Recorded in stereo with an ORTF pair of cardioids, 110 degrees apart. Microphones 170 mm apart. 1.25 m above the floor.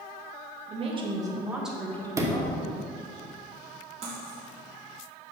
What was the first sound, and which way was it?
A woman speaking, 40° right.